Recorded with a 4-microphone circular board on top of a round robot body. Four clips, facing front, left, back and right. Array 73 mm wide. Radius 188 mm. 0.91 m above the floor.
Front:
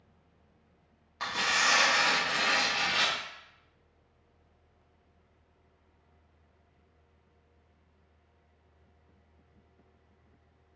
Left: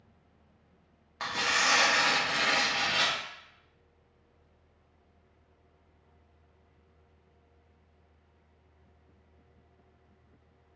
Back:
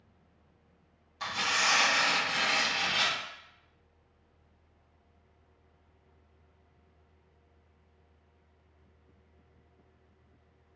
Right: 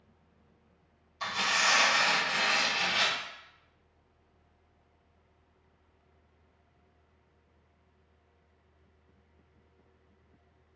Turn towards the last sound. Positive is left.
turn(degrees=60)